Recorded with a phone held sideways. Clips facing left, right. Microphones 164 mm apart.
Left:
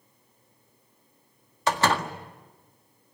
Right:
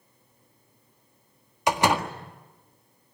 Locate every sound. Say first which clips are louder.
1.7 s a door slam: right 1 dB; 15° right (ahead or behind), 1.7 m